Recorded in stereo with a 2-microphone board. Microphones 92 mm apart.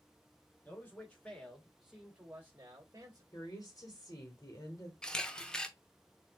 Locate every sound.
0.7 s a man speaking: 25° left (ahead or behind), 1.9 m; by 3.2 s 40° right (ahead or behind), 1.9 m
3.3 s a woman speaking: 40° left (ahead or behind), 1.5 m
5.0 s a camera shutter: 10° left (ahead or behind), 0.6 m